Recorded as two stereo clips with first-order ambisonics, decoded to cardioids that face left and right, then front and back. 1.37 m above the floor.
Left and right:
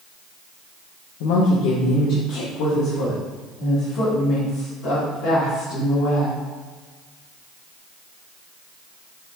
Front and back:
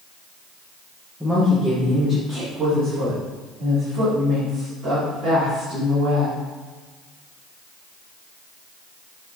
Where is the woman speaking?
90° left, 1.0 m; by 6.4 s 135° left, 3.5 m.